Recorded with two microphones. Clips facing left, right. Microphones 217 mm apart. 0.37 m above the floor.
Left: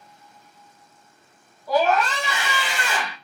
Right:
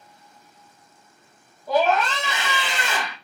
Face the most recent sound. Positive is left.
turn(degrees=-25)  # may be behind; listen again after turning